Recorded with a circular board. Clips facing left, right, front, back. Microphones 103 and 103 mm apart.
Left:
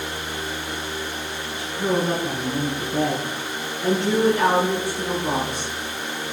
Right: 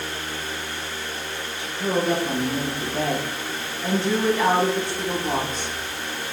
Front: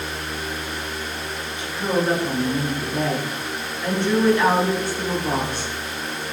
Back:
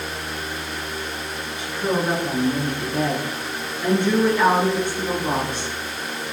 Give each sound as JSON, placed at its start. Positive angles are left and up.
{"t": 1.6, "sound": "a woman speaking", "azimuth_deg": 95, "distance_m": 9.0}